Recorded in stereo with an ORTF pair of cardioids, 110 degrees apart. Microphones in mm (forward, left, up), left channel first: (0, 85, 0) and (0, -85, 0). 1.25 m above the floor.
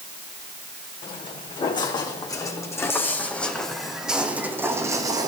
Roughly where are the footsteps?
Ahead left.